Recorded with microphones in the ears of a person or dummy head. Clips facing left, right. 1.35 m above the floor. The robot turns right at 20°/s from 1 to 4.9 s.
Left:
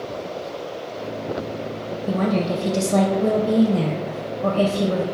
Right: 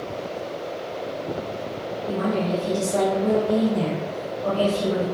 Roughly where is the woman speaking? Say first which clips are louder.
Left 2 dB; left.